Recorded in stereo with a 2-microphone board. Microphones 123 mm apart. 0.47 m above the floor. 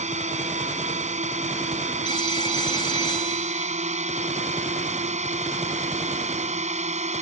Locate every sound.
0.0 s a drone: 70° right (ahead or behind)
2.0 s a phone ringing: 40° left (ahead or behind)